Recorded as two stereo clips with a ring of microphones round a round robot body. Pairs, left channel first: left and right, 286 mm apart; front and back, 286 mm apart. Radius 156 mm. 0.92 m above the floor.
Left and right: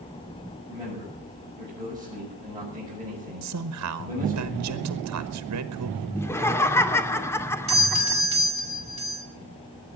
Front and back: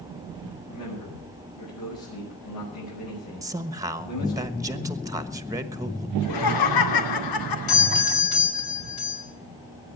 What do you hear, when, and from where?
0.7 s a man speaking: 15° right, 7 m
3.4 s a man speaking: 105° right, 1.3 m
6.2 s laughter: 10° left, 2 m
7.7 s a doorbell: 20° right, 4.5 m